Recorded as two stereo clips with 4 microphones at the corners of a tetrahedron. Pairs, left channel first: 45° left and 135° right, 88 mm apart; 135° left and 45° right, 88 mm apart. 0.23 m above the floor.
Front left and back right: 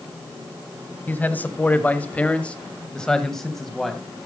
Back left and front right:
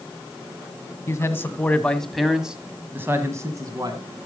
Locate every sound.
1.1 s a man speaking: 100° left, 1.5 m; by 4.0 s 45° right, 1.7 m